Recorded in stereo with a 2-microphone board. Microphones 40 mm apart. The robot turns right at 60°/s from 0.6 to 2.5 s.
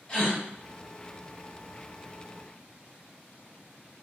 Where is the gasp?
30° left (ahead or behind), 1.7 m.